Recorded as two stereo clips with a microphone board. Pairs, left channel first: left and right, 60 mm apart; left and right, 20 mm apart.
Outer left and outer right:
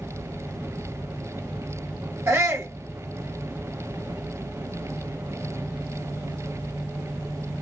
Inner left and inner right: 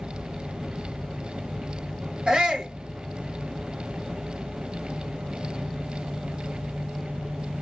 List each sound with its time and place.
2.3 s a shout: 40° right (ahead or behind), 1.3 m